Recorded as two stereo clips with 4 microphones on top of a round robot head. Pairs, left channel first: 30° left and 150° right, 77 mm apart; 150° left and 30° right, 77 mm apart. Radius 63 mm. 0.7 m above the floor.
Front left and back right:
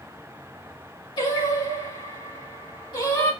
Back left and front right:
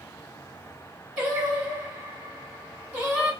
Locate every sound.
1.2 s singing: 45° left, 3 m